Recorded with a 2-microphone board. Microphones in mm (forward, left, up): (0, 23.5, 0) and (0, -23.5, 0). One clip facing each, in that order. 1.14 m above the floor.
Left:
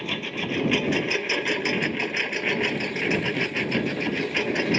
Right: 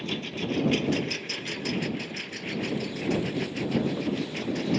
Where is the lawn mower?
40° left (ahead or behind); by 4.8 s 80° left.